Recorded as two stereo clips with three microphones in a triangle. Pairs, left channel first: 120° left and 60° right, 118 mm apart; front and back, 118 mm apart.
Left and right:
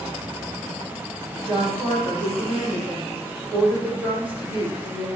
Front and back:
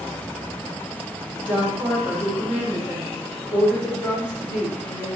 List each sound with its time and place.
1.4 s a woman speaking: 100° right, 4 m